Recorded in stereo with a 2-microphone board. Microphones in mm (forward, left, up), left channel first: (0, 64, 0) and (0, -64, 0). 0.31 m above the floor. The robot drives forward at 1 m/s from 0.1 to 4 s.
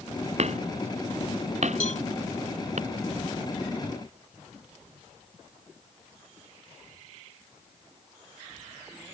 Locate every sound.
0.4 s hammering: 55° right (ahead or behind); by 2.8 s 65° right (ahead or behind)
1.8 s a cowbell: 65° left (ahead or behind); by 2.0 s 70° left (ahead or behind)